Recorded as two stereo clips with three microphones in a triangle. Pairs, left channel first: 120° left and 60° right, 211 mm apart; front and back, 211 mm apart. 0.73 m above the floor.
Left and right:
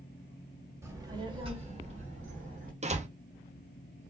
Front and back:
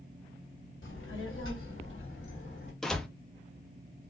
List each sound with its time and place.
0.8 s a child speaking: 15° left, 1.4 m; by 2.7 s 15° right, 2.5 m
2.8 s a door slam: 85° right, 0.7 m